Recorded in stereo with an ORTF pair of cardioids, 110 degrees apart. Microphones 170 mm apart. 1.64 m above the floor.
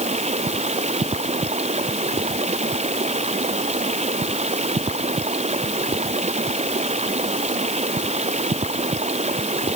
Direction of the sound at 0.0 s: 40° right.